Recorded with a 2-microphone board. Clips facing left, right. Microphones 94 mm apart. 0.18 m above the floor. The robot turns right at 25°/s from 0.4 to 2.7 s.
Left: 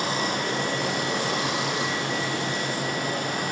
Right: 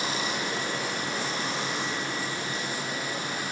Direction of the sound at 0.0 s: 60° left.